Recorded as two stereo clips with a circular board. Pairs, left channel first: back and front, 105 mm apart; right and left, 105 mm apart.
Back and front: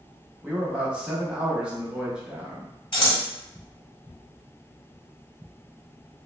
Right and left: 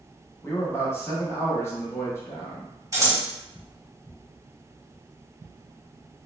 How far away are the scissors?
About 0.9 m.